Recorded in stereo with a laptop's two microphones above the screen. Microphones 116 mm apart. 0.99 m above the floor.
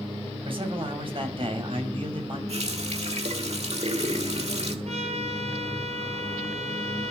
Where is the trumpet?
70° right (ahead or behind), 4 m.